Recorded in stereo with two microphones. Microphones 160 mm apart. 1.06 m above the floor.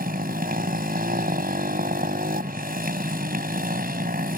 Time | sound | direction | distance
0.0 | a motorcycle | 70° right (ahead or behind) | ?